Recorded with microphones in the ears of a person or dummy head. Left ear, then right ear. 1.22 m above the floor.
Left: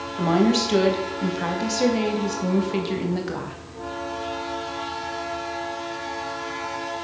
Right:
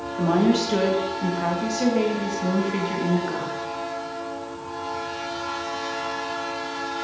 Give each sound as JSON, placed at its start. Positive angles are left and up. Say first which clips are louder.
{"t": 0.2, "sound": "a woman speaking", "louder": "left 1 dB", "side_deg": 10, "distance_m": 1.6}